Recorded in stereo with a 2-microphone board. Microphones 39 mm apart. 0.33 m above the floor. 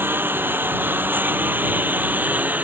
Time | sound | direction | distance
0.0 | a lawn mower | 70° right (ahead or behind) | ?